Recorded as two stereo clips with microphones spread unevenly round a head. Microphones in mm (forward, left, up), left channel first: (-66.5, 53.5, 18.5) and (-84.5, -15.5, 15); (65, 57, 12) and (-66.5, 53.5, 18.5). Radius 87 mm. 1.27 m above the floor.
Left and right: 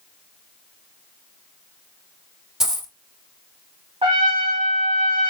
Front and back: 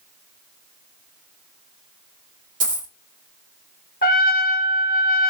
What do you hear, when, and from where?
2.6 s a dropped coin: 170° left, 1.9 m
4.0 s a trumpet: 45° right, 1.1 m